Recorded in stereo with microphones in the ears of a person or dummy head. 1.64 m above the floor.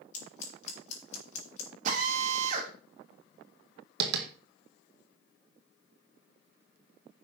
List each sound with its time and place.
0.1 s scissors: 45° left (ahead or behind), 3 m
1.9 s a drill: 45° right (ahead or behind), 3.5 m
4.0 s tapping: 70° right (ahead or behind), 1.8 m